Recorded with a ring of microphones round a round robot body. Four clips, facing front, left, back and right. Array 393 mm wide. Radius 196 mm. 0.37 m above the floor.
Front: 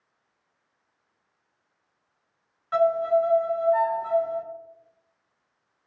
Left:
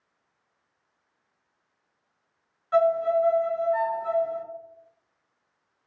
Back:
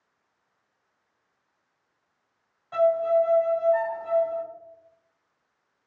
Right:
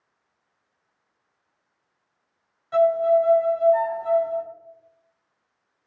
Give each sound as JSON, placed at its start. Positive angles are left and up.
{"t": 2.7, "sound": "a violin", "azimuth_deg": 15, "distance_m": 1.3}